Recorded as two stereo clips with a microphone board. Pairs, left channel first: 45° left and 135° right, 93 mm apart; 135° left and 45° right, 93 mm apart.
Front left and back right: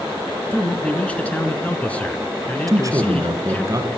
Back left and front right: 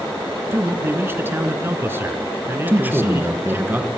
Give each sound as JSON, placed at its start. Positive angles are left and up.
{"t": 0.5, "sound": "a man speaking", "azimuth_deg": -15, "distance_m": 1.8}
{"t": 2.7, "sound": "a man speaking", "azimuth_deg": -105, "distance_m": 1.7}